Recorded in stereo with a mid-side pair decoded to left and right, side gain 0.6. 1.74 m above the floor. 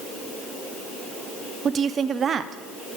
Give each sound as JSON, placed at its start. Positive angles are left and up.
{"t": 1.6, "sound": "a woman speaking", "azimuth_deg": -40, "distance_m": 0.9}